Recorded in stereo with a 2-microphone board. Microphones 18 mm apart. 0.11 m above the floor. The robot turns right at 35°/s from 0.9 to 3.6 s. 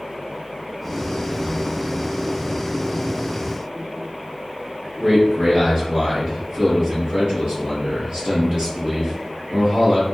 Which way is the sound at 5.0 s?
45° right (ahead or behind).